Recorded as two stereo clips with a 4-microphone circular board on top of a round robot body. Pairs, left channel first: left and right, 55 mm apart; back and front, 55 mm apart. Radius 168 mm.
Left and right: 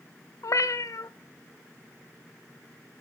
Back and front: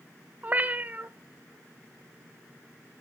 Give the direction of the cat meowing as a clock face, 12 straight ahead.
10 o'clock.